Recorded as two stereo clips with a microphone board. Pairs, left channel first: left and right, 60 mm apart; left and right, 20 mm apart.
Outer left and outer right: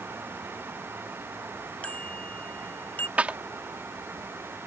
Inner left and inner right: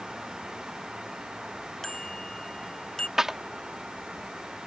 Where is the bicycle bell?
20° left (ahead or behind); by 3.1 s 30° left (ahead or behind).